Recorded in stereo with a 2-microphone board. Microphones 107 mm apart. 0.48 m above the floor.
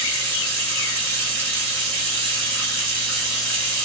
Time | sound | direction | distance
0.0 | running water | 15° left (ahead or behind) | 1.7 m